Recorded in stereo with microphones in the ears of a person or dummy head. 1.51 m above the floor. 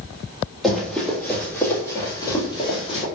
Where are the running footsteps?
Centre (ahead or behind), 2 m; by 3.0 s 35° left (ahead or behind), 2 m.